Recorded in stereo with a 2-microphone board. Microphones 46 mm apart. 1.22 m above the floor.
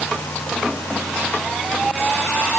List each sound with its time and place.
Only background noise.